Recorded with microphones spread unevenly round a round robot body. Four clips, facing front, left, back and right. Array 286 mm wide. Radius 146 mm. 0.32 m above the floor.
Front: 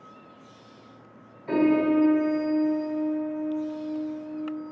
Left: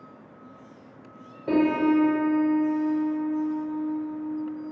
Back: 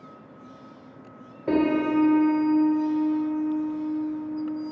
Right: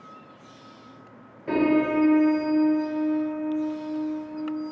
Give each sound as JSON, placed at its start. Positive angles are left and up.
{"t": 1.5, "sound": "a piano", "azimuth_deg": 175, "distance_m": 0.7}